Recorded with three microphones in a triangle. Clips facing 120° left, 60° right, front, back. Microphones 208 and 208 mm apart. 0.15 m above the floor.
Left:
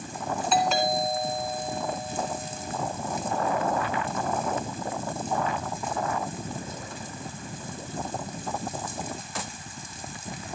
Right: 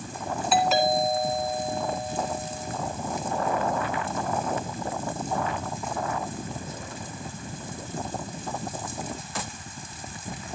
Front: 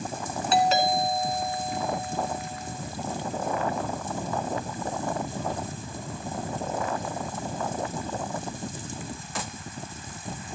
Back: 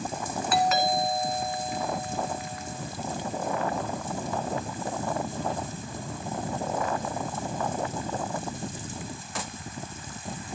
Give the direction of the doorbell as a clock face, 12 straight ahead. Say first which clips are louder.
Right 3 dB, front 2 dB; 11 o'clock.